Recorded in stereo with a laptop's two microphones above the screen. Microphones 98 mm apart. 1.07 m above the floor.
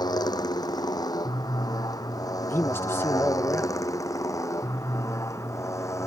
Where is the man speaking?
25° left (ahead or behind).